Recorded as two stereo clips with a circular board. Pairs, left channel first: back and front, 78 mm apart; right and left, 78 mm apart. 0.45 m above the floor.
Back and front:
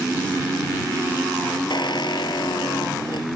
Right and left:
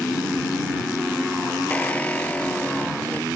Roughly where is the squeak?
Behind.